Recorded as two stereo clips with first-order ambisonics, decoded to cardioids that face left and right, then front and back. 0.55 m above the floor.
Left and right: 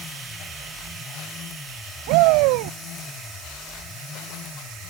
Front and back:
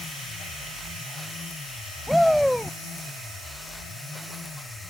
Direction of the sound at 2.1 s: 90° right.